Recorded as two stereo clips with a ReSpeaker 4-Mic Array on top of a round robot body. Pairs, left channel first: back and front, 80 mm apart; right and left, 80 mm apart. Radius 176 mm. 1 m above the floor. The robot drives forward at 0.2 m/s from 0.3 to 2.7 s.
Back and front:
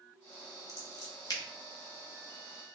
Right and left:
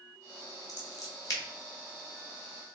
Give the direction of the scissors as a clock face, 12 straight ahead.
4 o'clock.